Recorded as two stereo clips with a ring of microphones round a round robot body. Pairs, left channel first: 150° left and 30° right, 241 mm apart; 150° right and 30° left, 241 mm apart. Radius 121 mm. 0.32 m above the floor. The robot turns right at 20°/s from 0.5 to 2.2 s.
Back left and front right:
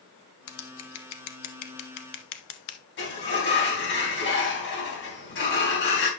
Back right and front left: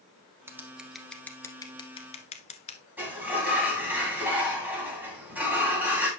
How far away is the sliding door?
About 3 m.